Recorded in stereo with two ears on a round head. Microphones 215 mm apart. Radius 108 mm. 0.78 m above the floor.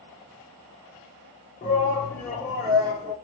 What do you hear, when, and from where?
1.6 s a shout: 25° left (ahead or behind), 0.9 m; by 3.1 s 30° right (ahead or behind), 0.9 m